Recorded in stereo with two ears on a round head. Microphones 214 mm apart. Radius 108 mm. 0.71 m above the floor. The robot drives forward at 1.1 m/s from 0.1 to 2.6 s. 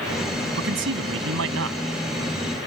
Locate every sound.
0.6 s a man speaking: 50° right (ahead or behind); by 1.8 s 60° right (ahead or behind)